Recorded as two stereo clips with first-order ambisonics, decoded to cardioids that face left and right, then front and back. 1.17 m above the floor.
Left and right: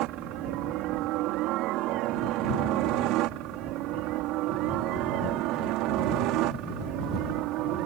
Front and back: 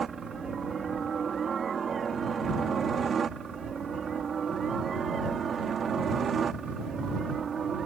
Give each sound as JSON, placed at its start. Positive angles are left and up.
{"t": 0.0, "sound": "a helicopter", "azimuth_deg": -115}